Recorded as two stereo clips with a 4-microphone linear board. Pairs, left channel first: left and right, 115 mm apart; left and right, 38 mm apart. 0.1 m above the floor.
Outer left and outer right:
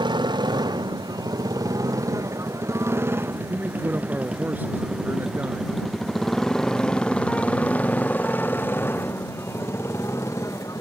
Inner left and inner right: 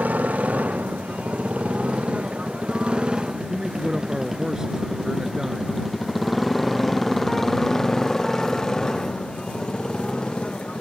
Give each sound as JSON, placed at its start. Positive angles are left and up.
{"t": 0.0, "sound": "a motorcycle", "side_deg": -45}
{"t": 3.5, "sound": "a man speaking", "side_deg": -15}